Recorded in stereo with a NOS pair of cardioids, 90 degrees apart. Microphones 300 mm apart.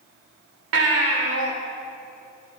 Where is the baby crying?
50° right, 3.5 m.